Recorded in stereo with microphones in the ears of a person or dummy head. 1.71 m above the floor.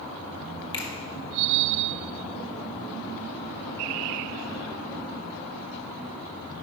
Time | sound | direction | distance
0.7 | a finger snap | 25° left (ahead or behind) | 1.6 m